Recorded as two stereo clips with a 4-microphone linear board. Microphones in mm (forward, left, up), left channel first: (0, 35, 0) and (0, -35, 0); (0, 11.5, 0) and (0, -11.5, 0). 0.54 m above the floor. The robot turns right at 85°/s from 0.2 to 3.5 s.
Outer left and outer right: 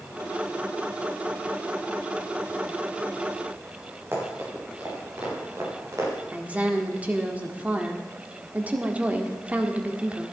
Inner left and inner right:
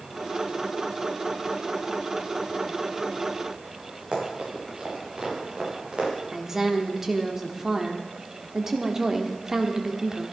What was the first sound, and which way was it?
Running footsteps, 40° right (ahead or behind).